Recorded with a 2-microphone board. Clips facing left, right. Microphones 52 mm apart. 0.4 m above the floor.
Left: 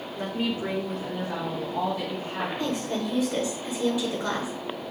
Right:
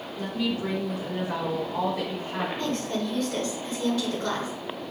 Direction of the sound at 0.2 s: 45° left (ahead or behind).